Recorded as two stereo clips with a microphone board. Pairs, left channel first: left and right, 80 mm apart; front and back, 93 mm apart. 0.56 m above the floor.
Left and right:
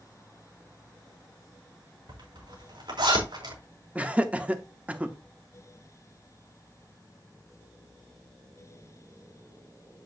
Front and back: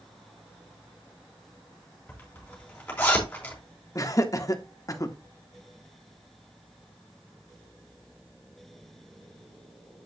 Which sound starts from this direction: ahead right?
Laughter, at 4.0 s.